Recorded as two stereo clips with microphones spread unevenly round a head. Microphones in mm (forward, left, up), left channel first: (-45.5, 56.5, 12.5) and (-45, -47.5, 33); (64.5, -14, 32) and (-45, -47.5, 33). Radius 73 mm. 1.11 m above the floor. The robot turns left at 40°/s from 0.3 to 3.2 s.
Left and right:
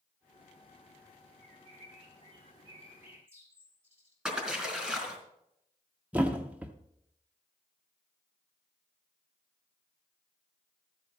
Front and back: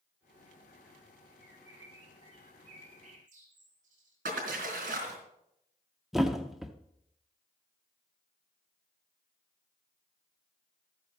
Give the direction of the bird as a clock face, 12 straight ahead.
3 o'clock.